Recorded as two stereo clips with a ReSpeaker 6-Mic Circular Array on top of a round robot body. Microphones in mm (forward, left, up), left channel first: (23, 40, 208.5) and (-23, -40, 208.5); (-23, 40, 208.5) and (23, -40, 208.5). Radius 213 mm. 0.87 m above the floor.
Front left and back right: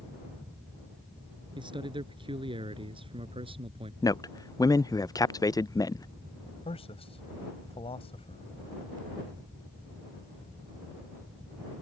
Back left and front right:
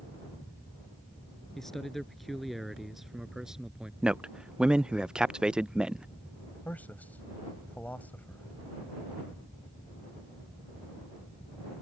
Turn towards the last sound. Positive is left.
turn(degrees=45)